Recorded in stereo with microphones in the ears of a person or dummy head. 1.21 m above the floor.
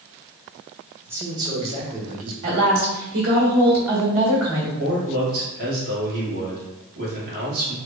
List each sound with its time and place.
1.1 s a man speaking: 10° right (ahead or behind), 1.0 m; by 2.3 s 45° right (ahead or behind), 1.3 m
2.4 s a woman speaking: 70° right (ahead or behind), 1.7 m
4.8 s a man speaking: 55° right (ahead or behind), 1.8 m